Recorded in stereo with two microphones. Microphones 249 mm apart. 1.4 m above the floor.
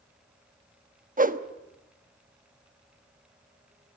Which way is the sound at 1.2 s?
35° right (ahead or behind).